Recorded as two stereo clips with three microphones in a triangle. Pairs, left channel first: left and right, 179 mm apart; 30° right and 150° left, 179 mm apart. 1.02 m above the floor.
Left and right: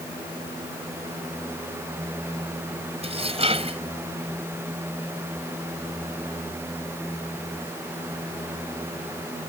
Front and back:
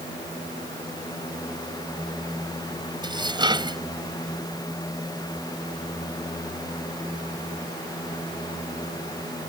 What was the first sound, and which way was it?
Dishes clattering, 145° right.